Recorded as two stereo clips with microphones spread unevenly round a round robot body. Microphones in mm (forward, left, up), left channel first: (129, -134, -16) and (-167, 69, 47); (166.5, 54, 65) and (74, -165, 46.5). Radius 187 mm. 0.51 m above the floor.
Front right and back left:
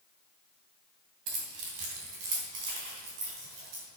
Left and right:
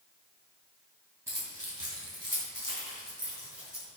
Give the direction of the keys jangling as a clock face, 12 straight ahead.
6 o'clock.